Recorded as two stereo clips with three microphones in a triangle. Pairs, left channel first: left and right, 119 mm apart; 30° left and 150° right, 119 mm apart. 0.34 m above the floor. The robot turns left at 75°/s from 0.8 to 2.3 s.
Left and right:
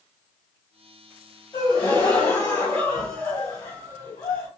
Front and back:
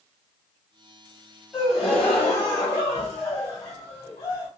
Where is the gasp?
135° left, 1.8 m; by 4.5 s 75° left, 1.8 m.